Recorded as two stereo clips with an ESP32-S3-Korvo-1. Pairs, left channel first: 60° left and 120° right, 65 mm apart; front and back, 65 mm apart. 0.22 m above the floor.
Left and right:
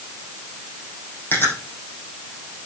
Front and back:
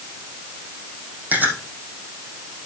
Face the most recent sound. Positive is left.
turn(degrees=115)